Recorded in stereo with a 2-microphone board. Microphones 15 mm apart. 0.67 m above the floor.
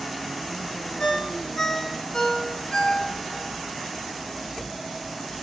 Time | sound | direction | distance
1.0 | a ringtone | 50° left (ahead or behind) | 5 m